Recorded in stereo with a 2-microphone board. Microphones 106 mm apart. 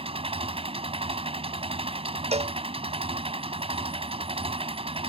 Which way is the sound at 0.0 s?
65° right (ahead or behind).